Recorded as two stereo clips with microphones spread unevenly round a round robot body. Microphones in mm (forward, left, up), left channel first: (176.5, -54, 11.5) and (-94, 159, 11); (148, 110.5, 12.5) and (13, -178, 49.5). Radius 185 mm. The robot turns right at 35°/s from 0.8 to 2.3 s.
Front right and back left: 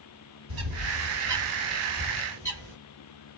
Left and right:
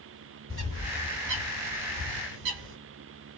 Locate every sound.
0.5 s a bird: 170° left, 1.6 m; by 2.8 s 140° right, 1.6 m